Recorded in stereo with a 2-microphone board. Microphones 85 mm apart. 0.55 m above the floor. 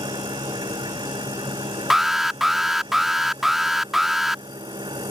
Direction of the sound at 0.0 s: 70° right (ahead or behind).